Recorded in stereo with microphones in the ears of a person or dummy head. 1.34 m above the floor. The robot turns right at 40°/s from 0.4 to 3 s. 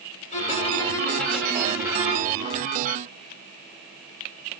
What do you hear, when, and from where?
0.3 s a violin: 145° left, 1.9 m; by 2.4 s 140° right, 1.9 m